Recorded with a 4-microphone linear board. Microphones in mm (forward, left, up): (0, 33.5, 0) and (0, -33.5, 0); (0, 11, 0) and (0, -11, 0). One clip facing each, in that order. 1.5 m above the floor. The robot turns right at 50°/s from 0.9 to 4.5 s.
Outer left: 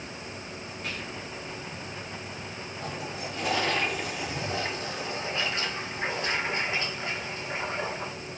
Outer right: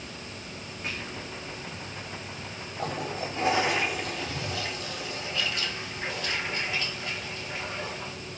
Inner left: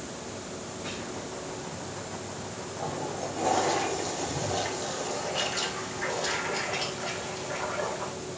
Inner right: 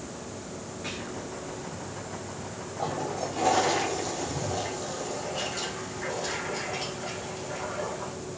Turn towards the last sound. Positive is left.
turn(degrees=25)